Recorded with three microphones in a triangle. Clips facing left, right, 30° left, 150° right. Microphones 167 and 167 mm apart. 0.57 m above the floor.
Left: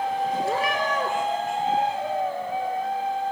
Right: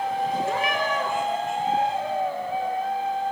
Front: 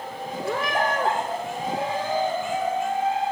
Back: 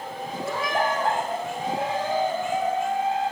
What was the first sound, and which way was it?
A cat meowing, 45° left.